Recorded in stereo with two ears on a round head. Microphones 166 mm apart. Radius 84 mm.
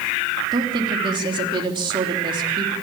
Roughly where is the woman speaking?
Right.